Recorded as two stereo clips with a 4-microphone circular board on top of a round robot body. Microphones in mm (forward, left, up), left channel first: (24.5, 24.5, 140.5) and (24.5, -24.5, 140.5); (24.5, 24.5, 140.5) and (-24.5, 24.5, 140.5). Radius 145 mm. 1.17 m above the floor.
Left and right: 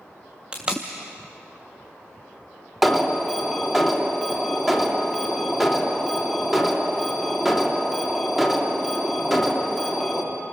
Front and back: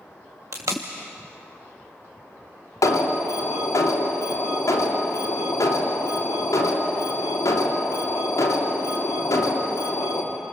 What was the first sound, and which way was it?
Tape being pulled, 165° right.